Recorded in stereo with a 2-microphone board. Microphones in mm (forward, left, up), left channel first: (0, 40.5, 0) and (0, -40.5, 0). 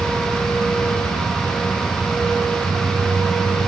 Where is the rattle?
No rattle in this recording.